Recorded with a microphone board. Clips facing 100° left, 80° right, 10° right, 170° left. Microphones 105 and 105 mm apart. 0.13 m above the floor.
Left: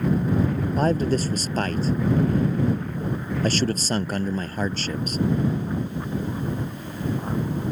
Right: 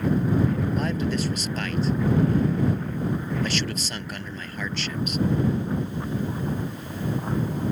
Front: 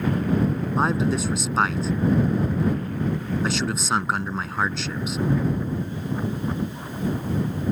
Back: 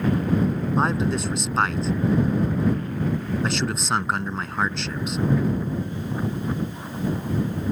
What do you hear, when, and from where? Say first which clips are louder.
0.8 s a man speaking: left 4 dB, front 1 dB; 75° left